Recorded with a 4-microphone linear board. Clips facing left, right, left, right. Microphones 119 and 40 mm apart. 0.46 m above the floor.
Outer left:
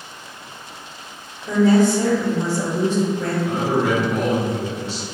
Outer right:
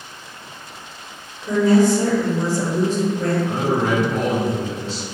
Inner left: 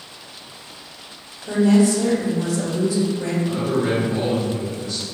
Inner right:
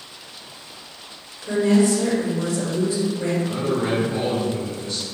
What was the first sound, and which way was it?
A woman speaking, 35° right (ahead or behind).